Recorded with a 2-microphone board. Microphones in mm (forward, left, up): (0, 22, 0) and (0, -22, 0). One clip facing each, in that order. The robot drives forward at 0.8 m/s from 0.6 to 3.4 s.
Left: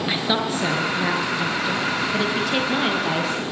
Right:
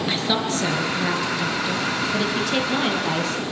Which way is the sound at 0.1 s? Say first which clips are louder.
Left 1 dB; 10° left (ahead or behind).